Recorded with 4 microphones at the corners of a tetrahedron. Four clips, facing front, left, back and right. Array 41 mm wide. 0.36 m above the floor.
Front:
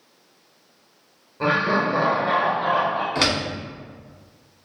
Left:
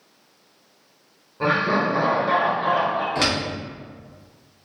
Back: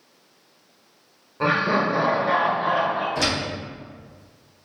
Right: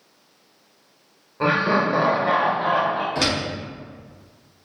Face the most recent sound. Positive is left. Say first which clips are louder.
# left 1 dB, front 2 dB
turn(degrees=10)